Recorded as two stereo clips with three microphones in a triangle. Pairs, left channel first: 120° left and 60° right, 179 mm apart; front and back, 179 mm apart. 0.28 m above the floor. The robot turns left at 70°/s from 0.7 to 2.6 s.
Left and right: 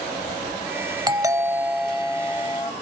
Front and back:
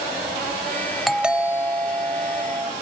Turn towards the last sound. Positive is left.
turn(degrees=165)